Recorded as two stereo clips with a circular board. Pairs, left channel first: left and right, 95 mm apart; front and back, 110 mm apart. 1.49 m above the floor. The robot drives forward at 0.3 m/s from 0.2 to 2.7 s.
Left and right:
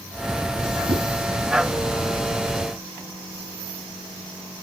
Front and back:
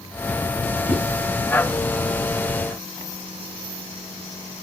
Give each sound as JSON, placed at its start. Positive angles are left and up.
{"t": 0.9, "sound": "a whoosh", "azimuth_deg": -110, "distance_m": 5.5}